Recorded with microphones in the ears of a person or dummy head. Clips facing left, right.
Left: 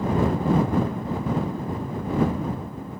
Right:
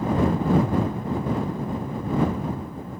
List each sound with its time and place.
Only background noise.